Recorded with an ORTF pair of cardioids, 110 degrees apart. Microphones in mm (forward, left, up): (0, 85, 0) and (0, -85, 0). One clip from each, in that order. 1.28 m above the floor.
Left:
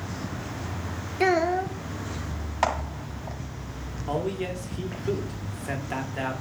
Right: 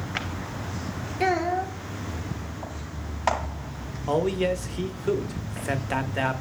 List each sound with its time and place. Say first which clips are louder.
1.2 s a child speaking: left 2 dB; 15° left, 0.6 m
4.1 s a man speaking: right 5 dB; 25° right, 0.8 m